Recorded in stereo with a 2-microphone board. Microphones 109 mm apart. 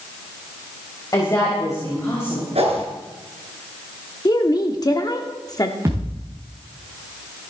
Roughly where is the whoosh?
Right.